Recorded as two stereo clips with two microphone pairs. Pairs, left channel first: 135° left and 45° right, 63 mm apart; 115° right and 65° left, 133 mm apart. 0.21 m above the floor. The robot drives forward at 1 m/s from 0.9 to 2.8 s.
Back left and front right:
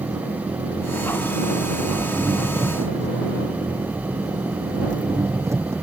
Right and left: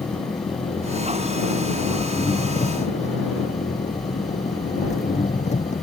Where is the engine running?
65° right; by 5.8 s 90° right.